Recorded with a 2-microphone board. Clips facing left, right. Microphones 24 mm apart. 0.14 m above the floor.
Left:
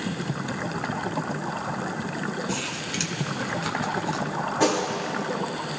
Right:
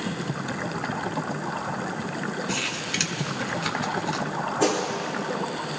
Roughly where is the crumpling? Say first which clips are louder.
Right 2 dB; right.